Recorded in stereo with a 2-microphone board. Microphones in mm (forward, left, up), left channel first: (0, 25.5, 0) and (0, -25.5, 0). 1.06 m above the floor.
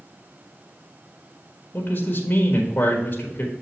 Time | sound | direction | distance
1.7 | a man speaking | 35° left (ahead or behind) | 1.4 m